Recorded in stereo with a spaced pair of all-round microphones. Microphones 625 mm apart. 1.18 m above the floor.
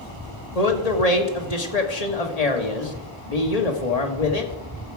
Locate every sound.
0.6 s a man speaking: 80° left, 1.7 m